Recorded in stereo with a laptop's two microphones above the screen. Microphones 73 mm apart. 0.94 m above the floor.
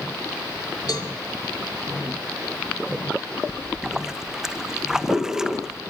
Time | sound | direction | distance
0.9 | a cowbell | 60° left (ahead or behind) | 2.5 m
3.5 | a splash | 10° right (ahead or behind) | 0.9 m